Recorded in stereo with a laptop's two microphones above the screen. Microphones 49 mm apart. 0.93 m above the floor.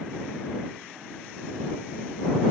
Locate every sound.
Only background noise.